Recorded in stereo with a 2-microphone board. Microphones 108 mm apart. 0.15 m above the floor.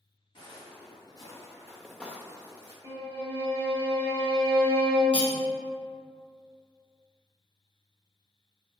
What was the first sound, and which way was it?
Footsteps, 50° left (ahead or behind).